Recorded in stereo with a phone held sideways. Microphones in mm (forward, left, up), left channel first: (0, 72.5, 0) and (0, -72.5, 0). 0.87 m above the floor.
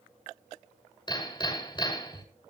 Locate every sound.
1.1 s hammering: 30° left (ahead or behind), 5.5 m